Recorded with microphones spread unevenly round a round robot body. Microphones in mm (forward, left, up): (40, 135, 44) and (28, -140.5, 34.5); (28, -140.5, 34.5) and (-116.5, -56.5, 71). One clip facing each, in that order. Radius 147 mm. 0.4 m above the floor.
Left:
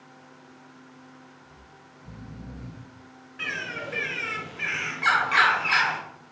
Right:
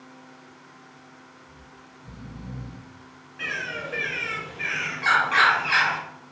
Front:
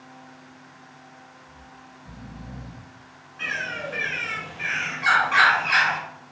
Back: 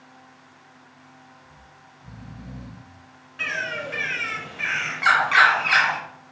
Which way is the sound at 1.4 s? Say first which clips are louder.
Right 3 dB, front 4 dB; 165° left.